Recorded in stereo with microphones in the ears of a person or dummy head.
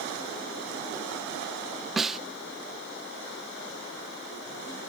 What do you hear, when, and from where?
2.0 s a snare drum: centre (ahead or behind)